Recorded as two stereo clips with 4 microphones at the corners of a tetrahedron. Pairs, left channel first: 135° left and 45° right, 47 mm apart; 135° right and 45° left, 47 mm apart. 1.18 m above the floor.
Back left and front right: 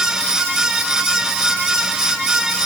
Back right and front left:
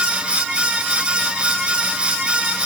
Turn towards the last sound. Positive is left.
No sound to turn to.